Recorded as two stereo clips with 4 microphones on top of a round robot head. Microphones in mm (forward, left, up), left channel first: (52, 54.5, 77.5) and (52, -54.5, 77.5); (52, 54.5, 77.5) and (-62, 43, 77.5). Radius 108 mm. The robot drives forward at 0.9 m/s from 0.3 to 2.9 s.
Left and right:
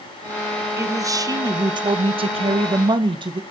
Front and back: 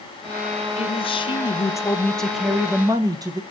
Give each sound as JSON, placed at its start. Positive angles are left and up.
{"t": 0.8, "sound": "a man speaking", "azimuth_deg": -25, "distance_m": 1.8}